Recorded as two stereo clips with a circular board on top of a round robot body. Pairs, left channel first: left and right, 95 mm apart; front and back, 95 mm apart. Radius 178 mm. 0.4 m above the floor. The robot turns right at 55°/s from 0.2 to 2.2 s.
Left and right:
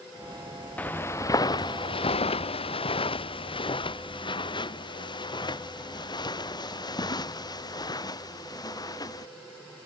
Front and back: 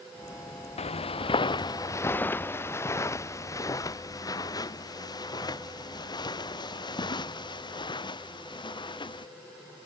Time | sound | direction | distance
0.8 | footsteps | 15° left | ?